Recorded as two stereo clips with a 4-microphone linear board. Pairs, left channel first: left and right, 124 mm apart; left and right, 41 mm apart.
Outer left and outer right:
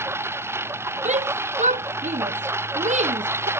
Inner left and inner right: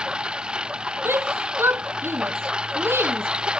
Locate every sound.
0.0 s a lawn mower: 20° right (ahead or behind)
1.1 s a shout: 75° right (ahead or behind)